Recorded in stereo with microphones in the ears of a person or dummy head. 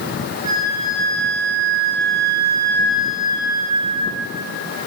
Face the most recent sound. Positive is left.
turn(degrees=-25)  # may be behind; listen again after turning